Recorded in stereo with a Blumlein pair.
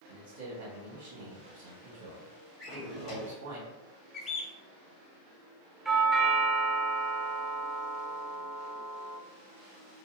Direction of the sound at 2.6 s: 35° left.